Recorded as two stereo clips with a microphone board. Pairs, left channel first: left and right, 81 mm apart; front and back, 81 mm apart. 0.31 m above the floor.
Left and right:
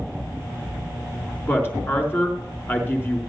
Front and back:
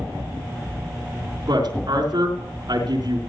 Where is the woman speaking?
150° left, 3.5 m.